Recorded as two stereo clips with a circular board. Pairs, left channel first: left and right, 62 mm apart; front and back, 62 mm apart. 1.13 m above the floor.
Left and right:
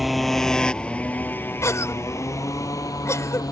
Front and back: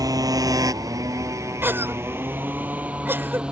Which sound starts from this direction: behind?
A motorcycle, at 0.0 s.